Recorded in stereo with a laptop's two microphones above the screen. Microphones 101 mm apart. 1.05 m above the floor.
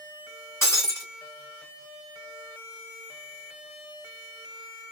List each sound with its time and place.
0.6 s breaking glass: 25° left (ahead or behind), 2 m